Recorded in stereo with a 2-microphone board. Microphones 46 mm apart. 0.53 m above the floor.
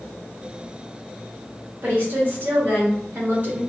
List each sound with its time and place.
1.8 s a woman speaking: 40° right (ahead or behind), 1.6 m